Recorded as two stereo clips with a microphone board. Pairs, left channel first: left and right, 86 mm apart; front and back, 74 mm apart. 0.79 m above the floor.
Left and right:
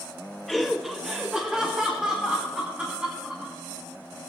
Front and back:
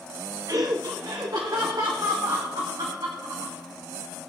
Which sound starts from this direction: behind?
Laughter, at 0.5 s.